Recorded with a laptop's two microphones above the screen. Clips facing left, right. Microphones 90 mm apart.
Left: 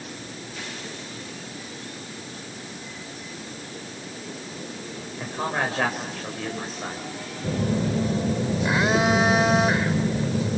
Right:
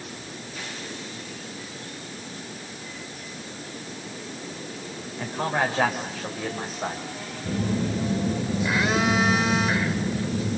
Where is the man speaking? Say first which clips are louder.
Right 2 dB; 5° left (ahead or behind), 5 m; by 7.1 s 20° right (ahead or behind), 6 m.